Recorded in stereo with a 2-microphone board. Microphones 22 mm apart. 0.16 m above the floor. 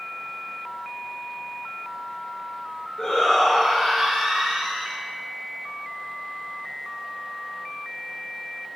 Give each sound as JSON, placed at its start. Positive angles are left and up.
{"t": 3.0, "sound": "a shout", "side_deg": 30, "distance_m": 1.6}